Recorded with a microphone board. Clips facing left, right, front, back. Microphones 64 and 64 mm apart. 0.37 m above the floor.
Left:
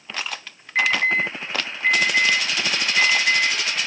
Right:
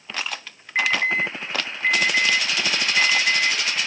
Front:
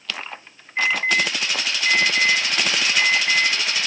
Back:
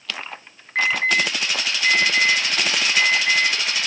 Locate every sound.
0.8 s an alarm: 170° right, 6.5 m